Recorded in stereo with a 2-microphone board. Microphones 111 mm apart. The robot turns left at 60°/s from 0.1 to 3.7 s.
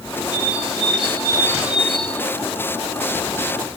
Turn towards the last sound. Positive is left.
turn(degrees=70)